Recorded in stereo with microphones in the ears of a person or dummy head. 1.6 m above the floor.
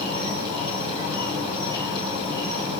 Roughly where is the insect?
Right.